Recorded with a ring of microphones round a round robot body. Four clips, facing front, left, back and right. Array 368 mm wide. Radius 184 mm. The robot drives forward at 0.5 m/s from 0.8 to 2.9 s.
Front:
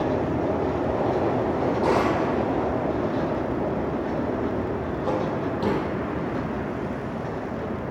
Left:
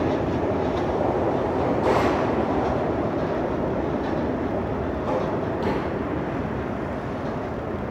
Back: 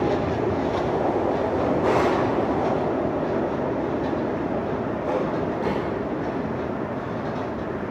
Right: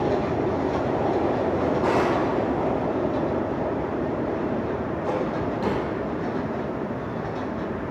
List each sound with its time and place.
1.6 s a drawer: 15° right, 4.5 m; by 5.9 s 20° right, 4 m